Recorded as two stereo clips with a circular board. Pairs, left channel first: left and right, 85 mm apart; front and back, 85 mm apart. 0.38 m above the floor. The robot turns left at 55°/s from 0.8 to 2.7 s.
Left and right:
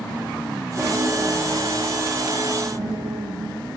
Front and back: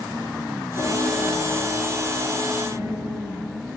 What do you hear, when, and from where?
0.8 s a piano: 20° right, 7 m; by 3.8 s 125° right, 7 m